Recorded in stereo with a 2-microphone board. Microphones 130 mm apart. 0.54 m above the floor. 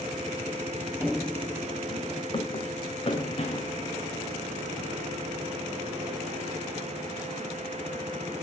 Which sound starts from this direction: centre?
Running footsteps, at 1.0 s.